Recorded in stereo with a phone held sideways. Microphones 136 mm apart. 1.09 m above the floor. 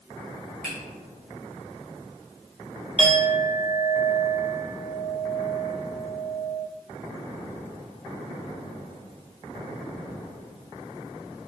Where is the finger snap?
80° left, 2 m.